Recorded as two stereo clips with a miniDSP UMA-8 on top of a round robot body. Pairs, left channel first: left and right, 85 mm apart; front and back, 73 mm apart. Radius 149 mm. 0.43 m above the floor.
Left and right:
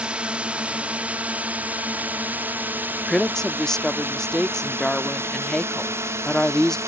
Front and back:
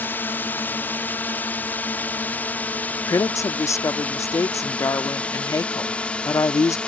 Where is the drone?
25° right; by 6.9 s 65° right.